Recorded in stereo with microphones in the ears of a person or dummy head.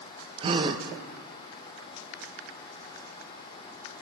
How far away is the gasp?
About 0.5 m.